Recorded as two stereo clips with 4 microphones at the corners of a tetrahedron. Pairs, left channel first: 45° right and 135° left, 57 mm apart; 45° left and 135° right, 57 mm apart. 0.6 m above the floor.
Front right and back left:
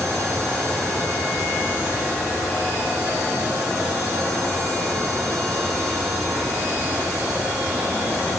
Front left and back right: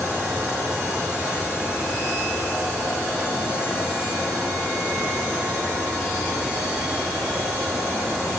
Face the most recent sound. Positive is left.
No sound to turn to.